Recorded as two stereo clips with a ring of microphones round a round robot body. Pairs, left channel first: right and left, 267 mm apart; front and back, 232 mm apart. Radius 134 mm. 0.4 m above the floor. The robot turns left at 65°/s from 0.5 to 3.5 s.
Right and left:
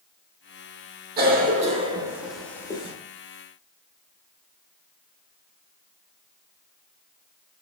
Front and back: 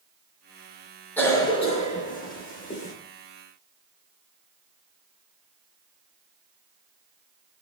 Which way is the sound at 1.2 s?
80° left.